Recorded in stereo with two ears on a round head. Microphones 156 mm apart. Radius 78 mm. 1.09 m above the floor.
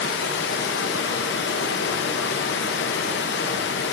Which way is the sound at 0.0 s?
70° left (ahead or behind).